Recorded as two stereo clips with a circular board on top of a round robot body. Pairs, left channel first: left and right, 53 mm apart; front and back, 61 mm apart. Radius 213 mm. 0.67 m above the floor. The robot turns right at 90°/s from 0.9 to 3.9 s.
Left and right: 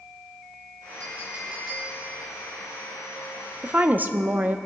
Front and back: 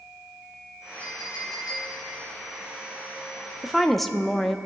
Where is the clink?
60° right, 3.5 m; by 2.0 s 25° left, 3.5 m.